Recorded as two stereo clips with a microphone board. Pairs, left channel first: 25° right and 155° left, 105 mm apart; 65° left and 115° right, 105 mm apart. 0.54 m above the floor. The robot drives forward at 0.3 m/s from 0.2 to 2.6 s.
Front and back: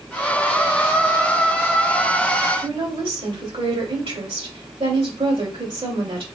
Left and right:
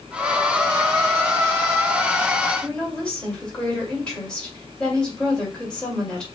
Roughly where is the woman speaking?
Behind left.